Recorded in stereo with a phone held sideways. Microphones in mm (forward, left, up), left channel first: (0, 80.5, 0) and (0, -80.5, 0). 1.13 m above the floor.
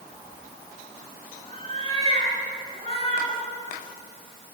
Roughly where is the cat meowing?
Left.